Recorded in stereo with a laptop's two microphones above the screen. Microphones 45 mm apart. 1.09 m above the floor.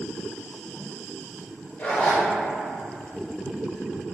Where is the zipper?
40° left (ahead or behind), 1.2 m.